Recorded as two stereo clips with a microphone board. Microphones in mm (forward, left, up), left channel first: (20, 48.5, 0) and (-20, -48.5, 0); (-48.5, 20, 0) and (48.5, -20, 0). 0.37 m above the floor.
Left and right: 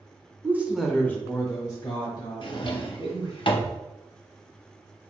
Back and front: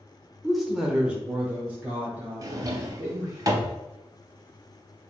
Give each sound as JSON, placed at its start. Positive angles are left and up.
{"t": 0.4, "sound": "a woman speaking", "azimuth_deg": -120, "distance_m": 0.8}
{"t": 2.4, "sound": "a drawer", "azimuth_deg": 30, "distance_m": 0.6}